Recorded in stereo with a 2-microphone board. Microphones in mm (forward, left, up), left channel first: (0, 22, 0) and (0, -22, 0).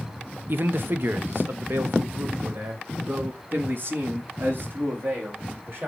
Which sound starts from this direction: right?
A man speaking, at 0.5 s.